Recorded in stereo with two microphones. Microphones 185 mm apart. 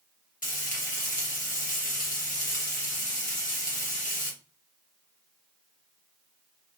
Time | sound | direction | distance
0.4 | frying | 45° left (ahead or behind) | 0.9 m